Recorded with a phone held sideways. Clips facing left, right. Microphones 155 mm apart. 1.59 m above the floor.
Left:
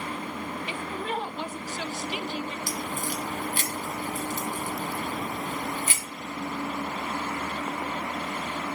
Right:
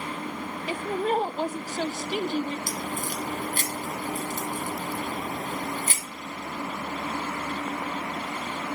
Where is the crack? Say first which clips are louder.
Even; 45° right (ahead or behind), 4 m.